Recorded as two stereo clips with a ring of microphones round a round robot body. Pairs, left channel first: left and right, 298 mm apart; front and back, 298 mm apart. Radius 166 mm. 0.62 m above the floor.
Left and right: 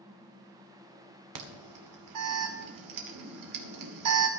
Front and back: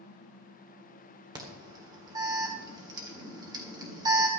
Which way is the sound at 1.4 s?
100° right.